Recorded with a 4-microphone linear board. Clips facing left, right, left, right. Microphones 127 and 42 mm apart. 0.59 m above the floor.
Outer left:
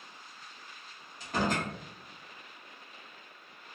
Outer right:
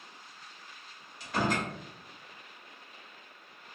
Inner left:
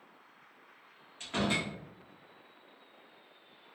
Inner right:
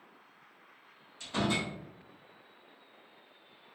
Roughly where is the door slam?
Left.